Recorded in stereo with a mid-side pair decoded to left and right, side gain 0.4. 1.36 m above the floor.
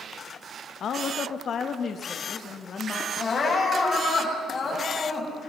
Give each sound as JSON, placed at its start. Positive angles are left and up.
{"t": 0.8, "sound": "a woman speaking", "azimuth_deg": 65, "distance_m": 1.5}
{"t": 3.2, "sound": "crying", "azimuth_deg": 45, "distance_m": 8.0}